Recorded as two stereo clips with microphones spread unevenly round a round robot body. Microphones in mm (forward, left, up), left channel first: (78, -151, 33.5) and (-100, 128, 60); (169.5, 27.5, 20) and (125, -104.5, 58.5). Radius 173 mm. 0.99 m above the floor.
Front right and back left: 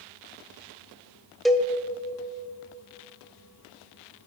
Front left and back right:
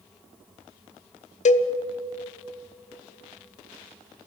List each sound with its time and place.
1.4 s a cowbell: 35° left, 0.7 m